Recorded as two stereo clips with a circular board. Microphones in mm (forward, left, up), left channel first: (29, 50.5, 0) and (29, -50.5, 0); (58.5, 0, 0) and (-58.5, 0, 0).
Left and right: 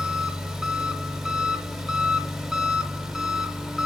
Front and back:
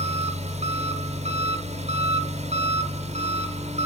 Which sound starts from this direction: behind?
An engine running, at 0.0 s.